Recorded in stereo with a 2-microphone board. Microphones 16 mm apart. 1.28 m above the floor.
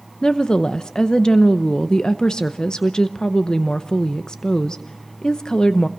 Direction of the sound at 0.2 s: 45° left (ahead or behind).